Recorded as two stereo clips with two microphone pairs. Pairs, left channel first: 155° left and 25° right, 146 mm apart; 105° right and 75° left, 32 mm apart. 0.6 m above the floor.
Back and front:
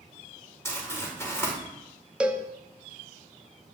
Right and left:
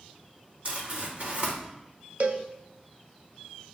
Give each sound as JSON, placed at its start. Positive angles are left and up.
{"t": 0.7, "sound": "crumpling", "azimuth_deg": 90, "distance_m": 2.5}
{"t": 2.2, "sound": "a cowbell", "azimuth_deg": 60, "distance_m": 0.5}